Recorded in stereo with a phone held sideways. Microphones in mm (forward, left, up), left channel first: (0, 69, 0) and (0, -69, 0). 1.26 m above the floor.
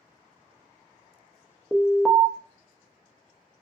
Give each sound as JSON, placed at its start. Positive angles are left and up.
{"t": 1.7, "sound": "an alarm", "side_deg": 5, "distance_m": 0.5}